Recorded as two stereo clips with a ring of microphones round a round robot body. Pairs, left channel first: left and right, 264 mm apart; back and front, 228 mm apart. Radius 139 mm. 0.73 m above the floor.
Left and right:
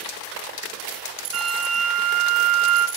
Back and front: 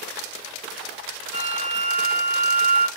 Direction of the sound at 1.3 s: 50° right.